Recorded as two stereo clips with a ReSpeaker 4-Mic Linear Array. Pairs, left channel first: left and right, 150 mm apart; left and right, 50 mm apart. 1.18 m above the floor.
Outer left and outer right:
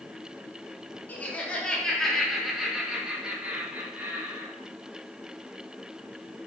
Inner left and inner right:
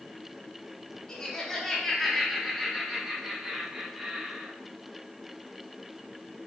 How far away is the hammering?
No hammering in this recording.